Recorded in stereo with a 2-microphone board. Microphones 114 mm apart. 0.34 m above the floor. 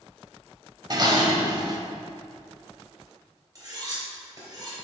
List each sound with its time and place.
0.9 s dishes clattering: 40° right (ahead or behind), 0.9 m
3.5 s cutlery clinking: 35° right (ahead or behind), 2.5 m